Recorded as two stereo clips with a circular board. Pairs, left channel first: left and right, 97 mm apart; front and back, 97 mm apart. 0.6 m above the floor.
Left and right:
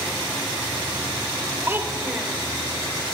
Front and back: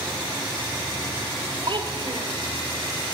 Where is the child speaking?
155° right, 1.8 m.